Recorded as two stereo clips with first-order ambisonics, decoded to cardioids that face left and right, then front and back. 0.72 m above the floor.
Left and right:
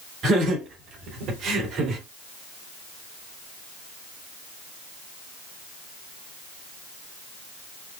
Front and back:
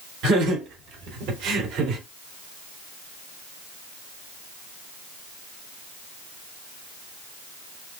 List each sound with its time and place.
0.2 s laughter: 135° right, 3.5 m; by 2.0 s 140° right, 2.5 m